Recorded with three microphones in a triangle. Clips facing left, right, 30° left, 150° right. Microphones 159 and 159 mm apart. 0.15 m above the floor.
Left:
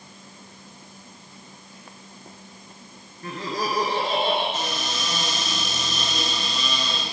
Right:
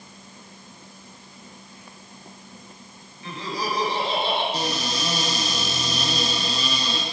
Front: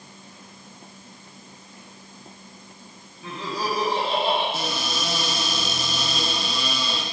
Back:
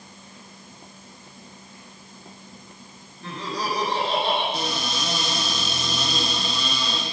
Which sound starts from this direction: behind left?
Laughter, at 3.2 s.